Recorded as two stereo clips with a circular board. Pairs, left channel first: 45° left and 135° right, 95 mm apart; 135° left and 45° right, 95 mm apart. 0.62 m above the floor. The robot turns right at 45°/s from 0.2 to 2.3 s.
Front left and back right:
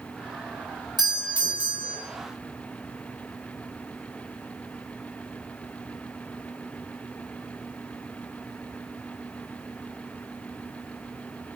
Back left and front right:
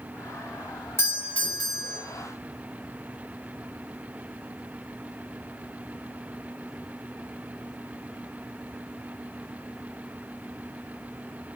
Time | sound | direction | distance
1.0 | a doorbell | 165° right | 3 m